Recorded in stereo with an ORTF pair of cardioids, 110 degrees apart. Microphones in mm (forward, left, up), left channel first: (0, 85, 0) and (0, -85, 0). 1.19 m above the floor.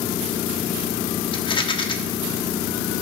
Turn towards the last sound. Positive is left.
turn(degrees=30)